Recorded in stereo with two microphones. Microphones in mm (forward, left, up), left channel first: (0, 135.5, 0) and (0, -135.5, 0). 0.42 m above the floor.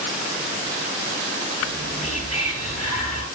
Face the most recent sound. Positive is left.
turn(degrees=60)  # may be behind; listen again after turning